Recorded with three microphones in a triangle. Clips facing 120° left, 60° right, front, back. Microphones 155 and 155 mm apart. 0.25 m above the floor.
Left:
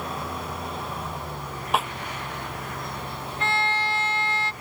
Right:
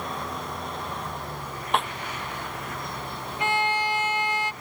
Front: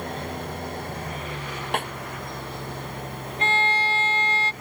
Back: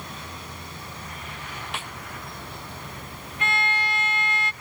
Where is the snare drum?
35° left.